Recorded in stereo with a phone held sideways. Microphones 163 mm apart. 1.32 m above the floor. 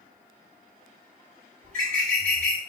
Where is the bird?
60° right (ahead or behind), 2.5 m.